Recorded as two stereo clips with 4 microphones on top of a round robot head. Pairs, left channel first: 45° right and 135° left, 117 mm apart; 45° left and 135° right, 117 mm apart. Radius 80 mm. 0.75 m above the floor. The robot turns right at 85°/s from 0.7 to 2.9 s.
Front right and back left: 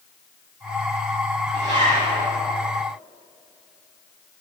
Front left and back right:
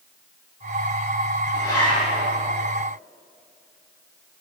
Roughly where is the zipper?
Left.